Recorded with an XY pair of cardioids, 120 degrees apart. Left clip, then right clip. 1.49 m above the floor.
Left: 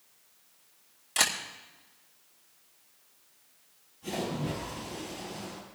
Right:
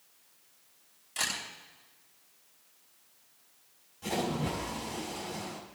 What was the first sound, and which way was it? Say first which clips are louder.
A camera shutter: left 6 dB; 50° left.